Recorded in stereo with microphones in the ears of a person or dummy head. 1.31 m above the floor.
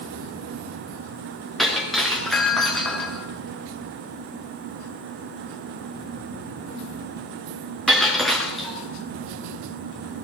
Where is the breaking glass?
5° right (ahead or behind), 4 m.